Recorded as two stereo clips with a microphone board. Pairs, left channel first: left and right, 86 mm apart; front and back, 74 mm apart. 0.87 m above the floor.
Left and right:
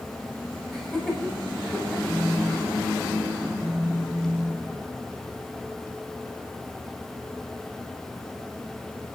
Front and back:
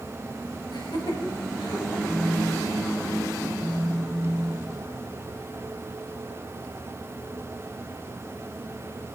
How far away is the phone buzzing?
About 2 m.